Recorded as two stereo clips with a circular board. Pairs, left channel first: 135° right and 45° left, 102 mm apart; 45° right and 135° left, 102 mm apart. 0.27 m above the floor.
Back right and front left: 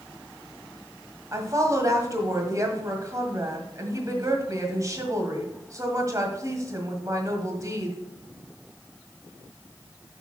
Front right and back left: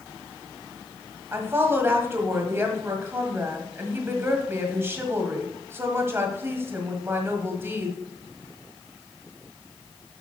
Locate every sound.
1.3 s a woman speaking: 80° left, 1.7 m